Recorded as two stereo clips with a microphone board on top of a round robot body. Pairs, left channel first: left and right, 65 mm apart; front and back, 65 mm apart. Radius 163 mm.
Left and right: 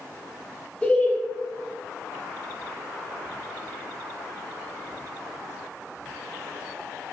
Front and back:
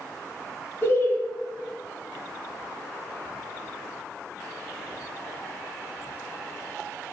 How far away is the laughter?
About 1.0 m.